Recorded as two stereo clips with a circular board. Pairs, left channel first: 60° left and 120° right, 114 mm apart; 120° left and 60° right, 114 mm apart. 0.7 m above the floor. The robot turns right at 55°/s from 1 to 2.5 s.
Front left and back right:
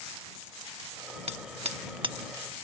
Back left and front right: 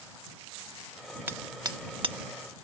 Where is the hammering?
130° right; by 2.1 s 80° right.